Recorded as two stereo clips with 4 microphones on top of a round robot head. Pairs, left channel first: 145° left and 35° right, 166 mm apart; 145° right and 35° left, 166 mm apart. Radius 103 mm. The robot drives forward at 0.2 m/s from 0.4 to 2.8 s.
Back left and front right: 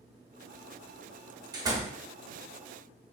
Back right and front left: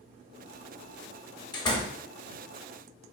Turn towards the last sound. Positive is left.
turn(degrees=-120)